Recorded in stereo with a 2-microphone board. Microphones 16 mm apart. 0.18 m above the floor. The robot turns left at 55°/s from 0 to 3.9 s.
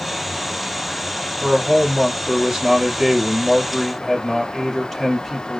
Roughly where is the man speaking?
Ahead right.